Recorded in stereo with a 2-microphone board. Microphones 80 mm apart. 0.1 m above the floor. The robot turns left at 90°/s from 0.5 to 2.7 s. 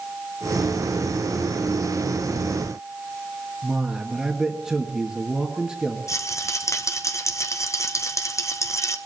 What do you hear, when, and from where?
3.6 s a man speaking: 10° right (ahead or behind), 2 m
6.1 s a rattle: 40° left (ahead or behind), 1.0 m